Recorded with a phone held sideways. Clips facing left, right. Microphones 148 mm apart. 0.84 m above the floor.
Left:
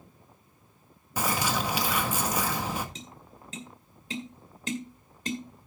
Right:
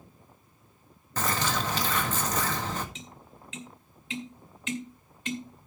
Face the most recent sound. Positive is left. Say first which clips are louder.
# left 1 dB
turn(degrees=40)  # may be behind; listen again after turning